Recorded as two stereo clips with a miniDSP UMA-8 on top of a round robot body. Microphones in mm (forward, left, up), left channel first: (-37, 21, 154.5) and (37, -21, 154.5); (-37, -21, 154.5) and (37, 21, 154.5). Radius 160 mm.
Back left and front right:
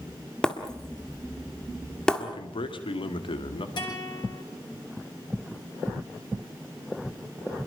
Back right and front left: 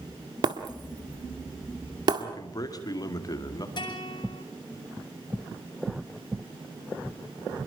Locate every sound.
0.4 s breaking glass: 70° left, 1.7 m
2.2 s a man speaking: 165° left, 2.5 m
3.8 s a guitar: 175° left, 9.5 m